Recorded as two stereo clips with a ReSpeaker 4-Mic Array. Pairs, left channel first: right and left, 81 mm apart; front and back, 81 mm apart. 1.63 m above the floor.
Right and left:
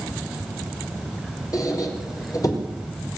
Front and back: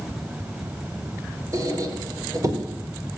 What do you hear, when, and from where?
1.5 s a squeak: 135° right, 5 m